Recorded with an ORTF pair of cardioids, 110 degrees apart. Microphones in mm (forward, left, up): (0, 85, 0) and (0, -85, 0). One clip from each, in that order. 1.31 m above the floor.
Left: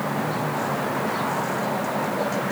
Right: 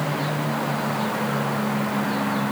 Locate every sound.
Only background noise.